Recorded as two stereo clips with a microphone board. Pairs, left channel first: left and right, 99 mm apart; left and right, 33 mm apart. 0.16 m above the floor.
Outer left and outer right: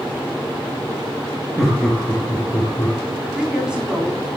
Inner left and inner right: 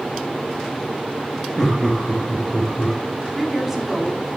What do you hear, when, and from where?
1.6 s laughter: 5° right (ahead or behind), 2 m; by 3.0 s 20° left (ahead or behind), 2 m
3.4 s a woman speaking: 10° right (ahead or behind), 1.1 m